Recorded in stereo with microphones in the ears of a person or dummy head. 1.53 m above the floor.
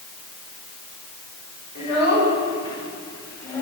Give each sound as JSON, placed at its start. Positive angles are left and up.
{"t": 1.8, "sound": "a child speaking", "side_deg": 40, "distance_m": 4.0}